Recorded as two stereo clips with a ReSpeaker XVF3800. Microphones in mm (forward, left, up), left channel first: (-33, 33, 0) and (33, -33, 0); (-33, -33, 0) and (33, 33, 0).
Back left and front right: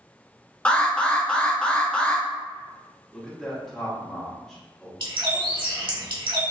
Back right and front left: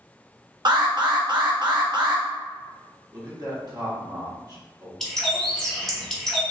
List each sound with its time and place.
0.7 s an alarm: 60° left, 0.6 m
3.1 s a man speaking: 50° left, 1.3 m
5.0 s a bird: 50° right, 1.0 m